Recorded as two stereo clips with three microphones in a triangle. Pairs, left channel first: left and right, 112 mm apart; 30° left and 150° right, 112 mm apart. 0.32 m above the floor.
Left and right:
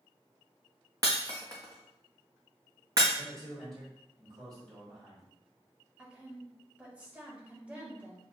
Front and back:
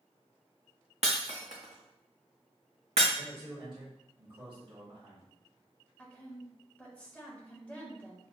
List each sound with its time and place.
1.0 s breaking glass: 145° right, 1.5 m
3.1 s a man speaking: 130° right, 2 m
6.0 s a woman speaking: 30° right, 1.3 m